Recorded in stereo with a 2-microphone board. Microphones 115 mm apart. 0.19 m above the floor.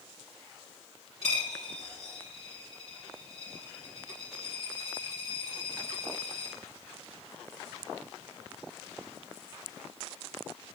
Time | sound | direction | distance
1.2 | a dropped coin | 60° left (ahead or behind) | 3 m